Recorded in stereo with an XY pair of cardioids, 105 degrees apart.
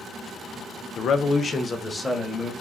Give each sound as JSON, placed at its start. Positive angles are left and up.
{"t": 1.0, "sound": "a man speaking", "azimuth_deg": 65, "distance_m": 0.6}